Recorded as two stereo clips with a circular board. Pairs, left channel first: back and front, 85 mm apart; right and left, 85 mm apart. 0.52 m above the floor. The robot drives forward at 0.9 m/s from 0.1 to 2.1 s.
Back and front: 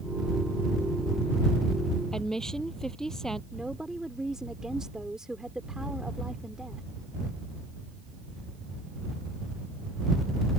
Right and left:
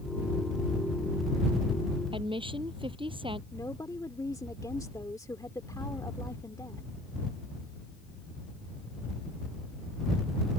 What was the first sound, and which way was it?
A woman speaking, 95° left.